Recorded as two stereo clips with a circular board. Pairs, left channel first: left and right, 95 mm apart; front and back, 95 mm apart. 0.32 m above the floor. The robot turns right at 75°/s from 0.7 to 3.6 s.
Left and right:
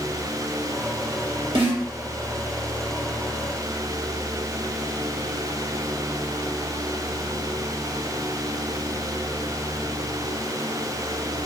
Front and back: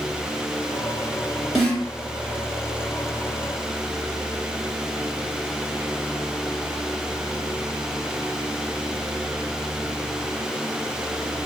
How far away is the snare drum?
About 1.8 m.